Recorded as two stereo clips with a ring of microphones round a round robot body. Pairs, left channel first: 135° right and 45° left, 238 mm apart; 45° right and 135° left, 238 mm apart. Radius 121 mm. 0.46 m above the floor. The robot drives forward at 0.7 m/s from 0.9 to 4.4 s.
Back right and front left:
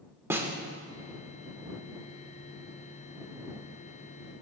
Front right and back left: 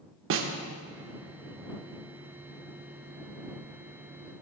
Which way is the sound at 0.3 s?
125° left.